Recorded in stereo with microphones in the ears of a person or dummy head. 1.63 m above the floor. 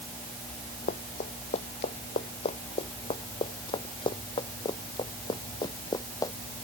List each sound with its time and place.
0.9 s running footsteps: 35° left (ahead or behind); by 6.3 s 20° left (ahead or behind)